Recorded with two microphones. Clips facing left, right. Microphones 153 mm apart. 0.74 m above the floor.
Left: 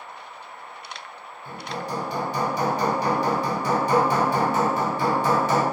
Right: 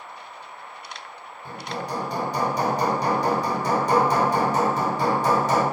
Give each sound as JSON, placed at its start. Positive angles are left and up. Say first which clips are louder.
{"t": 1.4, "sound": "hammering", "louder": "even", "side_deg": -40, "distance_m": 1.5}